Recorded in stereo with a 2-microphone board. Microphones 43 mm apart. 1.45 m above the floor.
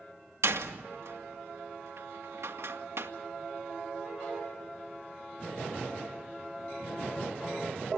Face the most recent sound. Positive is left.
turn(degrees=-80)